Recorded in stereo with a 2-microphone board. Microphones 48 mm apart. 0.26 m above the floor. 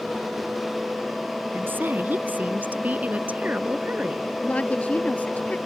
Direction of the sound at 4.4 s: 30° left (ahead or behind).